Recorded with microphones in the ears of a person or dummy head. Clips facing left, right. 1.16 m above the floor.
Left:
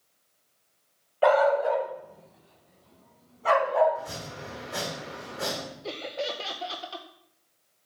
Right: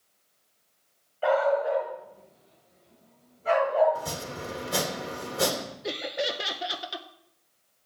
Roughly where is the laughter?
Centre.